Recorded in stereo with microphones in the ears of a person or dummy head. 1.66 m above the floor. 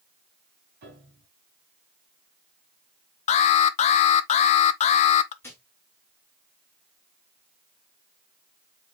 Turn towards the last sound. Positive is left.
turn(degrees=10)  # may be behind; listen again after turning